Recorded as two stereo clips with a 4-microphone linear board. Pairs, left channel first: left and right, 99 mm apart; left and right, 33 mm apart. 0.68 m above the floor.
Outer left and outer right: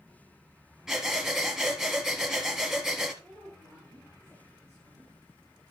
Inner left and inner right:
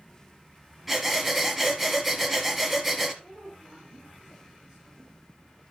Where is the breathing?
5° right (ahead or behind), 2 m.